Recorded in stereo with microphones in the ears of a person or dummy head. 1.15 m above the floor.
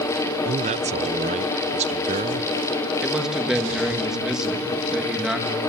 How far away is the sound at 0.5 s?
About 0.6 m.